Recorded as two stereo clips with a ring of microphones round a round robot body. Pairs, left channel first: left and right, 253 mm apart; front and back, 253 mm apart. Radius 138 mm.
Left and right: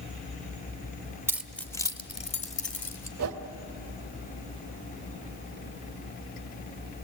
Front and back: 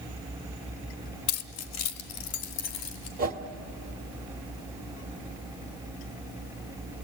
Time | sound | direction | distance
1.3 | keys jangling | 10° right | 0.8 m
3.2 | a whoosh | 125° right | 1.2 m